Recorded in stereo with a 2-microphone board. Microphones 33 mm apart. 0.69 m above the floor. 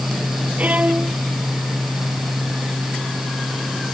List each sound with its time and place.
0.6 s a violin: 45° right (ahead or behind)